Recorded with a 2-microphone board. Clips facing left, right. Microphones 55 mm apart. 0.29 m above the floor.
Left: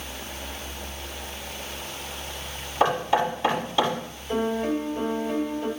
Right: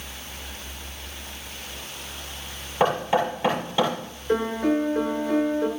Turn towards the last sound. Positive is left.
turn(degrees=-65)  # may be behind; listen again after turning